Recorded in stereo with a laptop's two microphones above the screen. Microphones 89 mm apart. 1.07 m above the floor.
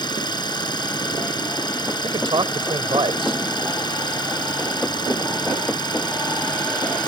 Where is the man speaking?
60° right (ahead or behind).